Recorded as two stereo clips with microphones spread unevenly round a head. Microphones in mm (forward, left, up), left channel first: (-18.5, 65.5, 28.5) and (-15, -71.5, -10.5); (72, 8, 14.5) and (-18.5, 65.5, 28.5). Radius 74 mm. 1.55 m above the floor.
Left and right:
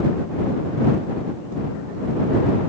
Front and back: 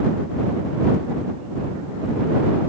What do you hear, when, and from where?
Only background noise.